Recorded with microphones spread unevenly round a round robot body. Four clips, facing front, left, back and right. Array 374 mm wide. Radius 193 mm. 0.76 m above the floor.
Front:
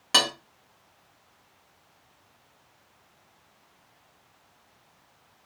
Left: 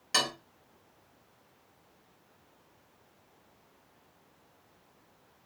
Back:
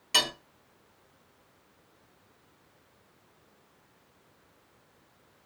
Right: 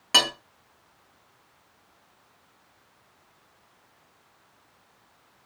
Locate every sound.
0.1 s cutlery clinking: 50° right, 0.6 m